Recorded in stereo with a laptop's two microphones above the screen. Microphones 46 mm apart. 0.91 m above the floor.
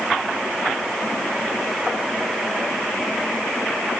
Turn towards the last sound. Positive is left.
No sound to turn to.